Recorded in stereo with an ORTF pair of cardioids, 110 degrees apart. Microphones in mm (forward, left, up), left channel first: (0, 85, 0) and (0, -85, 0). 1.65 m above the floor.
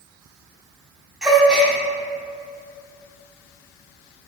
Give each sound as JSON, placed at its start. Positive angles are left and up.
{"t": 1.2, "sound": "a gasp", "azimuth_deg": -5, "distance_m": 0.9}